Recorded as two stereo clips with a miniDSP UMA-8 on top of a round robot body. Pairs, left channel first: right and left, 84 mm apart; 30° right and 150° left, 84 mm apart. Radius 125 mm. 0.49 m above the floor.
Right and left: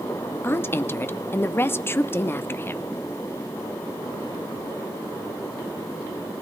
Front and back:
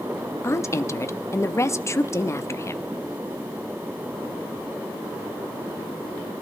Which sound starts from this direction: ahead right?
A woman speaking, at 0.4 s.